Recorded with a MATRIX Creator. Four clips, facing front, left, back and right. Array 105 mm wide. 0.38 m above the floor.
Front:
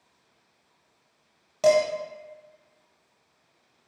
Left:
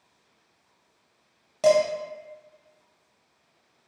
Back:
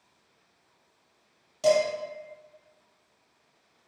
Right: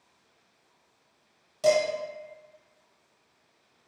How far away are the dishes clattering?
About 0.9 m.